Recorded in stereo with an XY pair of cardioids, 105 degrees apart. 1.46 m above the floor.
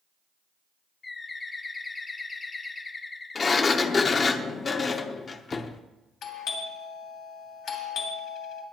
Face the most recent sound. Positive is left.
turn(degrees=70)